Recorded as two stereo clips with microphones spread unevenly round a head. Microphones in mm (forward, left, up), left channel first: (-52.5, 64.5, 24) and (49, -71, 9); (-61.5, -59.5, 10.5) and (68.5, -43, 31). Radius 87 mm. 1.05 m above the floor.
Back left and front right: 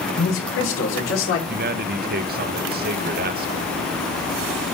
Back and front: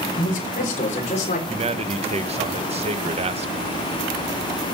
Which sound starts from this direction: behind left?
A man speaking, at 0.2 s.